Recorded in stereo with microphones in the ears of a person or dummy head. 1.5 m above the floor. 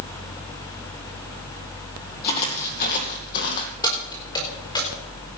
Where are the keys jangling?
25° left (ahead or behind), 4 m.